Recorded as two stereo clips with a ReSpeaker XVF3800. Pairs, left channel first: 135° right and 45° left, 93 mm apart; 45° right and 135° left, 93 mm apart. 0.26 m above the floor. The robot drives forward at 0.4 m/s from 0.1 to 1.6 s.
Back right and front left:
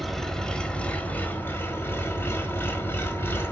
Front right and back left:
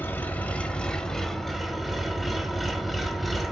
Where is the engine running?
50° right, 1.1 m; by 3.5 s 135° right, 1.2 m.